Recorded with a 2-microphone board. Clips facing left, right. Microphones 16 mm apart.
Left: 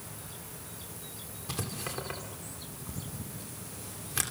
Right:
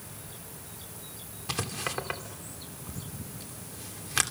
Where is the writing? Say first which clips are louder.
Right 5 dB; 35° right (ahead or behind), 2.5 m.